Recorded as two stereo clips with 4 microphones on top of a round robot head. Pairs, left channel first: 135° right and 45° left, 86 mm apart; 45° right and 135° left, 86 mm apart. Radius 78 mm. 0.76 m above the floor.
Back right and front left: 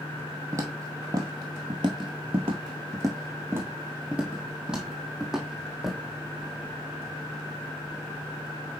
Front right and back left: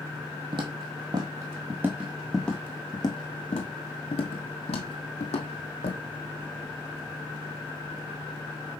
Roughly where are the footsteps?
Left.